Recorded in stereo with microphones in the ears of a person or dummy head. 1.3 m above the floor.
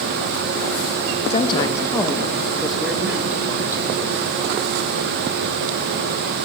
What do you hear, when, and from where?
1.3 s a woman speaking: 30° left (ahead or behind), 1.3 m; by 4.2 s 15° right (ahead or behind), 4 m